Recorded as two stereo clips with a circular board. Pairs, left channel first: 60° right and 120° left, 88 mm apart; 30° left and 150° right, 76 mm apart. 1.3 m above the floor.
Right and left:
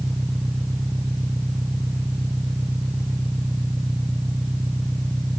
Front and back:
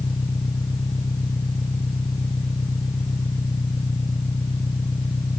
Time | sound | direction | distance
0.0 | an engine running | 40° left | ?